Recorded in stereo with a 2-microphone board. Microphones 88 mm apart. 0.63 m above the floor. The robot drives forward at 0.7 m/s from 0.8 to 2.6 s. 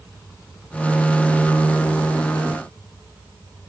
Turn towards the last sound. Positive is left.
No sound to turn to.